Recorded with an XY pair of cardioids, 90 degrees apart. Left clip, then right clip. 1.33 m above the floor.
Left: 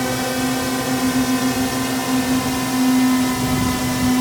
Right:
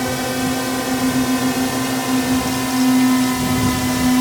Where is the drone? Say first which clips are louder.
Even; 5° left; by 4.2 s 15° right.